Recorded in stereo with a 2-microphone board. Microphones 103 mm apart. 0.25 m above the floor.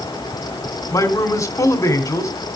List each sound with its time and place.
0.9 s a man speaking: 30° left (ahead or behind), 1.8 m